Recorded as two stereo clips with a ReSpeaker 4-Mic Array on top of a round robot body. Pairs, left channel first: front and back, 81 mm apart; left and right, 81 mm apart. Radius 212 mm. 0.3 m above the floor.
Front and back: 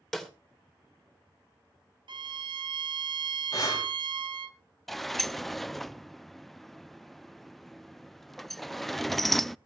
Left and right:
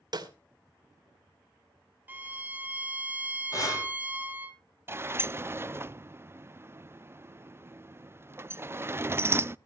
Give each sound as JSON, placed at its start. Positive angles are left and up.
{"t": 0.1, "sound": "a snare drum", "azimuth_deg": -80, "distance_m": 2.5}
{"t": 2.1, "sound": "a violin", "azimuth_deg": -160, "distance_m": 1.0}
{"t": 3.5, "sound": "breathing", "azimuth_deg": 45, "distance_m": 5.0}
{"t": 4.9, "sound": "a sliding door", "azimuth_deg": -85, "distance_m": 0.7}